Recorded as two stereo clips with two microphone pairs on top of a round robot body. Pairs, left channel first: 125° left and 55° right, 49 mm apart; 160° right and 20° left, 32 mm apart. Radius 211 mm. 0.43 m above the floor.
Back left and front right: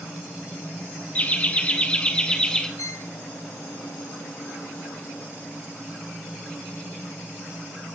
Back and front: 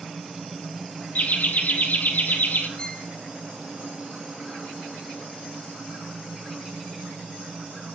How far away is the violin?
About 0.8 m.